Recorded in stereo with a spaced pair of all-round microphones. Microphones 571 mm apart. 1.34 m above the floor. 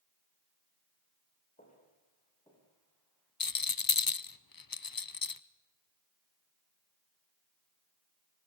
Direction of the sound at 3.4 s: 40° left (ahead or behind).